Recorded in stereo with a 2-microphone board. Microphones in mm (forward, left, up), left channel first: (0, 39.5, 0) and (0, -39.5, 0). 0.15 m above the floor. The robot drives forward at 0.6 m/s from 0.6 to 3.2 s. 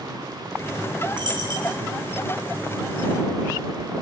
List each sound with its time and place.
1.1 s a dropped coin: 65° right (ahead or behind), 7 m